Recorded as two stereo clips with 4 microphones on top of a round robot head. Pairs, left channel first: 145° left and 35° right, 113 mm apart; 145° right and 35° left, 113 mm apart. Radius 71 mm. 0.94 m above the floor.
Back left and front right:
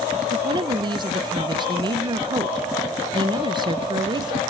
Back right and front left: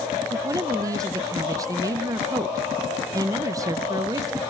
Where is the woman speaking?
10° right, 0.7 m.